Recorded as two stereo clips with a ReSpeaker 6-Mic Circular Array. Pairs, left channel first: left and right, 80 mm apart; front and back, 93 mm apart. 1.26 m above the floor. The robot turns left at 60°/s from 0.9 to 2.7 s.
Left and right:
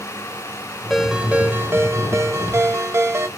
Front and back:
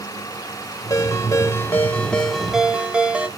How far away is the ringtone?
About 0.7 m.